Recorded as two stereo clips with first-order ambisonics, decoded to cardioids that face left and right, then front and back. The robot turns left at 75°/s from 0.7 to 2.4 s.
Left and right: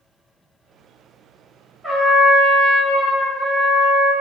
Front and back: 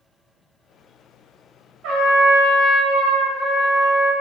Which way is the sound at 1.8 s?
170° right.